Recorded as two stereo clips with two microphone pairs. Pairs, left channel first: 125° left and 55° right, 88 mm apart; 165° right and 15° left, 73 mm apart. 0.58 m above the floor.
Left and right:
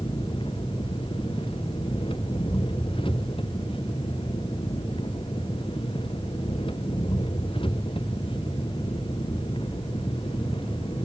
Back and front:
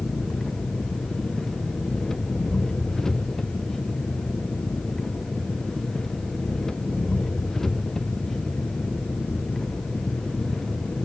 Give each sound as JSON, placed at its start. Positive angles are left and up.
{"t": 0.0, "sound": "an engine running", "azimuth_deg": 110}